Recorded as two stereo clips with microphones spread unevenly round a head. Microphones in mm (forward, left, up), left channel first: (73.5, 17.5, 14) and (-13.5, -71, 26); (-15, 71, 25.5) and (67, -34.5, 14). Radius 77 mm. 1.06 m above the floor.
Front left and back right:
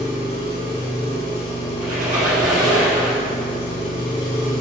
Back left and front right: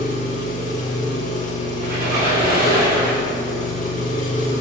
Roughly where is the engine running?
Left.